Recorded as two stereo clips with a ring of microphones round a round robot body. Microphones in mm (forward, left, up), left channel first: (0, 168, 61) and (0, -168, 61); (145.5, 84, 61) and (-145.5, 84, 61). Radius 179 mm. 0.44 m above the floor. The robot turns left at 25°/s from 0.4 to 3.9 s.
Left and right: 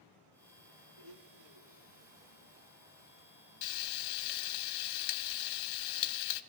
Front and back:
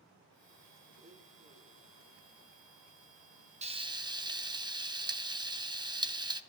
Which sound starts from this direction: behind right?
A blender, at 1.0 s.